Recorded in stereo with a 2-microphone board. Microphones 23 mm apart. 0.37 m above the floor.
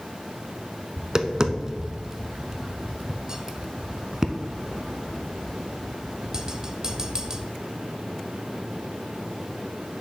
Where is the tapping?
30° right (ahead or behind), 0.5 m.